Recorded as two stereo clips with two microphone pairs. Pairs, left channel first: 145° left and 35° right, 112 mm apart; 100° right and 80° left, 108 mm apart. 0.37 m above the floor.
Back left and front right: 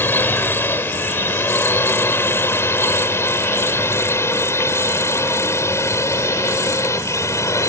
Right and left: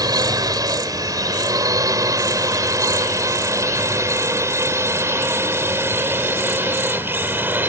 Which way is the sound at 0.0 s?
85° left.